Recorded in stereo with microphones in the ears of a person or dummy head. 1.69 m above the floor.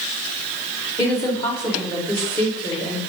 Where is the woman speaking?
20° left (ahead or behind), 3 m.